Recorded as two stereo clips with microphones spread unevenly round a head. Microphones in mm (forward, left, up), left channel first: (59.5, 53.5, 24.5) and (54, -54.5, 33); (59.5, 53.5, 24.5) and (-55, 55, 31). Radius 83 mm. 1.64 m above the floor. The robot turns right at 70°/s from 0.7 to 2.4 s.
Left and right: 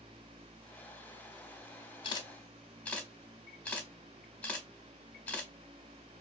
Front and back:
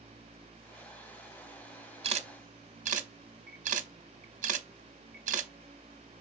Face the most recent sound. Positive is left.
turn(degrees=165)